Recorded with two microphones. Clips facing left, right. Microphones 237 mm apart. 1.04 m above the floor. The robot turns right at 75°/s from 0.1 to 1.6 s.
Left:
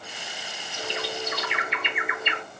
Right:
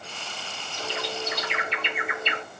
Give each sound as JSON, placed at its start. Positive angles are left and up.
{"t": 0.8, "sound": "a bird", "side_deg": 25, "distance_m": 1.2}